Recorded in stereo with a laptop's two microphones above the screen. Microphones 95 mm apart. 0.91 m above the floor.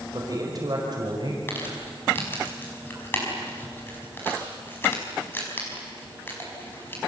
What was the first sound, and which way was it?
A man speaking, 40° right (ahead or behind).